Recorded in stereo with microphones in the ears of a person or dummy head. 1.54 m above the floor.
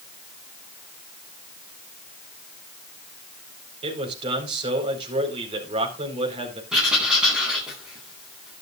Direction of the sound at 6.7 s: 5° right (ahead or behind).